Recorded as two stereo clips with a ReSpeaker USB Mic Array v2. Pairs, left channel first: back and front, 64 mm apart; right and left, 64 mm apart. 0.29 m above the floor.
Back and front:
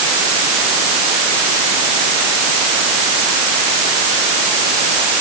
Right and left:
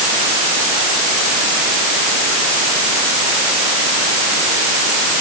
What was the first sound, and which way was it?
Only background noise.